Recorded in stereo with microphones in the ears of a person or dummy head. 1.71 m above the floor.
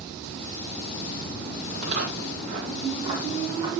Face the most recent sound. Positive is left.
turn(degrees=-15)  # may be behind; listen again after turning